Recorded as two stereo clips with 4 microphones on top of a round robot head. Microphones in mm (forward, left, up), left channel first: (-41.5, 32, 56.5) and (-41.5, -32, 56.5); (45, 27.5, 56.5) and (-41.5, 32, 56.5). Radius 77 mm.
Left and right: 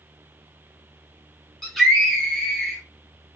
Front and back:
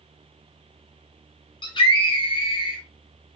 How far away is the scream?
About 0.9 m.